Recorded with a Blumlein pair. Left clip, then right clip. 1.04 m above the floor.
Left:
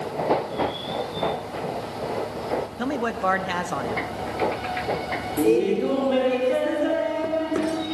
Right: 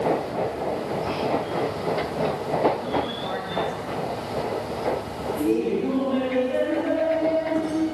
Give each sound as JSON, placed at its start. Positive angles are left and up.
{"t": 2.8, "sound": "a man speaking", "azimuth_deg": 45, "distance_m": 1.4}
{"t": 5.4, "sound": "laughter", "azimuth_deg": 60, "distance_m": 3.5}